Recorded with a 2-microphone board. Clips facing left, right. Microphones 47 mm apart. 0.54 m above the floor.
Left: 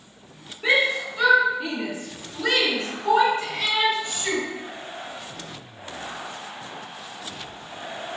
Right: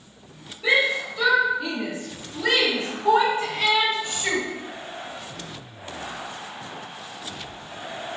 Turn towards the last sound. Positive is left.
turn(degrees=-25)  # may be behind; listen again after turning